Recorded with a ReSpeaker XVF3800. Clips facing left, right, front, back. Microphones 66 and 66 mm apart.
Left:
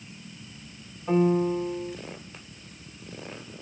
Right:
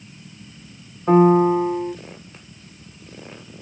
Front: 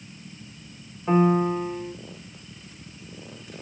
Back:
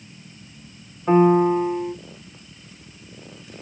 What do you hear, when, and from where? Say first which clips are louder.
1.1 s a piano: right 9 dB, back 5 dB; 110° right, 0.6 m